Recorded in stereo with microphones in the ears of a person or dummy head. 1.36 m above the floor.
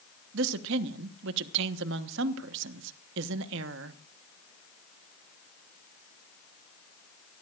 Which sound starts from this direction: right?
A woman speaking, at 0.3 s.